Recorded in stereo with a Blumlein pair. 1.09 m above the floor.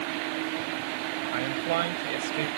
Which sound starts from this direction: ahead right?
A man speaking, at 1.3 s.